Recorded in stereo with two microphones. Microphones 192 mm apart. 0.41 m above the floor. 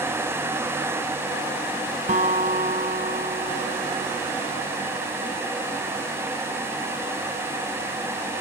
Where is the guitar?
45° right (ahead or behind).